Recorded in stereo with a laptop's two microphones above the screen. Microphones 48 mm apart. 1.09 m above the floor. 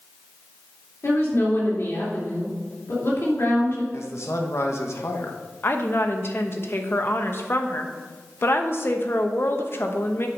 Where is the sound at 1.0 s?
65° left (ahead or behind), 3 m.